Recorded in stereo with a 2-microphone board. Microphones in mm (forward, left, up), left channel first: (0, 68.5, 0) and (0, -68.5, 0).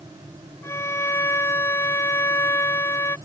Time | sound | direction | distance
0.6 | a violin | 20° left (ahead or behind) | ?